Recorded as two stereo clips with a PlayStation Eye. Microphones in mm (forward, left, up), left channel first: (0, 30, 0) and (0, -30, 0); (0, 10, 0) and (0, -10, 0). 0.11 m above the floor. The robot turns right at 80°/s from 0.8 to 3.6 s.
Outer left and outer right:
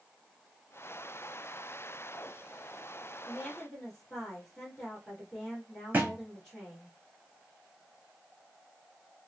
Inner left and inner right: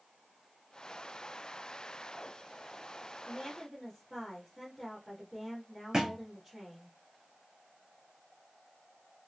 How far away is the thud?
About 0.9 m.